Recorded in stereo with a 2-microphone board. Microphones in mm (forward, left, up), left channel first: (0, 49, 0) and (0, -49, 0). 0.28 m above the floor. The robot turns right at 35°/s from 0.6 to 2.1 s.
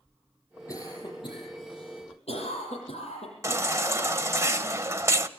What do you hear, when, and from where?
0.7 s a cough: 35° left (ahead or behind), 9.5 m; by 3.6 s 80° left, 9.5 m
3.4 s a baby crying: 30° right (ahead or behind), 0.8 m